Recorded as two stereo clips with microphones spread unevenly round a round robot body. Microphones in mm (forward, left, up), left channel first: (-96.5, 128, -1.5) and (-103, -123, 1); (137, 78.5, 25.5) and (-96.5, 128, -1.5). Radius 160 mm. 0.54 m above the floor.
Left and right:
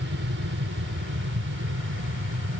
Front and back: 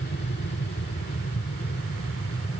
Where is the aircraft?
60° right; by 2.6 s 65° right.